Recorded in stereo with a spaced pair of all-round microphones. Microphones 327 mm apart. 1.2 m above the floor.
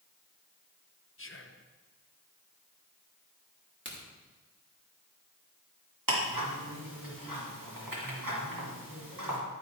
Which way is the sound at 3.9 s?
35° right (ahead or behind).